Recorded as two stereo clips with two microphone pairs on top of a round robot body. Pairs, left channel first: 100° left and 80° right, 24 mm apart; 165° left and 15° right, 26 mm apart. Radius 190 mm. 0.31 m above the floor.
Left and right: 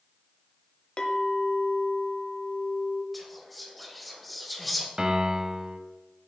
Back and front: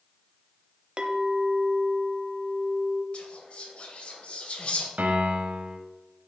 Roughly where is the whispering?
Behind.